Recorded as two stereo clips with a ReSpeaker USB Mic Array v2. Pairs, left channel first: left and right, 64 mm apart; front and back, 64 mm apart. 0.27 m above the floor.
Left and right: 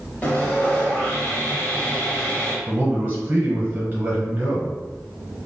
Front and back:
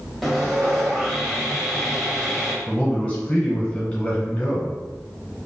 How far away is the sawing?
About 0.8 m.